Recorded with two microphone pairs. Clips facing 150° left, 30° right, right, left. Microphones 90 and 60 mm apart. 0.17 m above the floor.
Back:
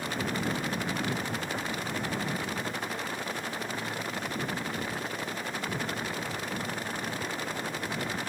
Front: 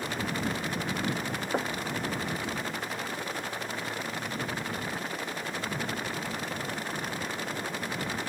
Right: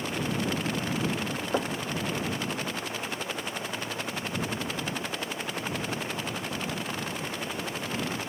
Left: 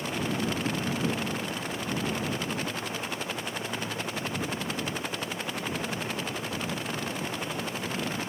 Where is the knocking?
85° right.